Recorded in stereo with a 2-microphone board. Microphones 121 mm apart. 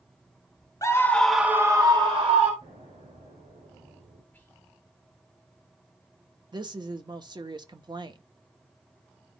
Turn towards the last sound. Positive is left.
turn(degrees=-40)  # may be behind; listen again after turning